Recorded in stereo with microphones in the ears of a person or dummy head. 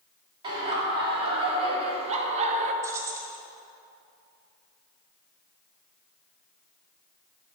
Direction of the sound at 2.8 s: 20° right (ahead or behind).